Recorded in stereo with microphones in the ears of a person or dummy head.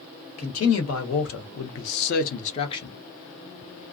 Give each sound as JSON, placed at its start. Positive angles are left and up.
{"t": 0.4, "sound": "a man speaking", "side_deg": 80, "distance_m": 1.3}